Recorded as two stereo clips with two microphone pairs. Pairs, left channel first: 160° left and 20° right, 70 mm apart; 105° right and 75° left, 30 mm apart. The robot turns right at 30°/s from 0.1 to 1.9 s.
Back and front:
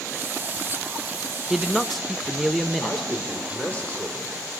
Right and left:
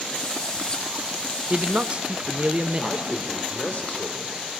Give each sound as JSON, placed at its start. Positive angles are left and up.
{"t": 1.5, "sound": "a man speaking", "azimuth_deg": 60, "distance_m": 0.7}
{"t": 2.8, "sound": "a man speaking", "azimuth_deg": -135, "distance_m": 3.0}